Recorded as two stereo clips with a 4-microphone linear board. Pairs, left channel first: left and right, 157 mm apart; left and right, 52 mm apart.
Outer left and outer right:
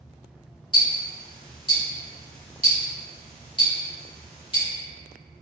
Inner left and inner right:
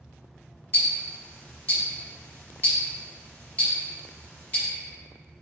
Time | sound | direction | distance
0.7 | ticking | 35° left (ahead or behind) | 1.4 m